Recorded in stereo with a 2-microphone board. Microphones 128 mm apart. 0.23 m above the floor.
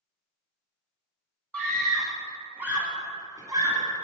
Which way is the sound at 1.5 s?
10° left (ahead or behind).